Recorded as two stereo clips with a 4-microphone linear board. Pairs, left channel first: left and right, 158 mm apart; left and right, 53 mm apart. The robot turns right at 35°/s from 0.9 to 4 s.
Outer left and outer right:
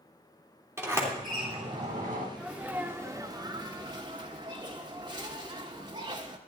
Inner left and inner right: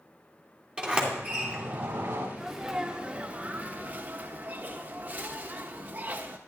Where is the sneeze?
10° right (ahead or behind), 1.1 m; by 6.4 s 30° right (ahead or behind), 1.1 m.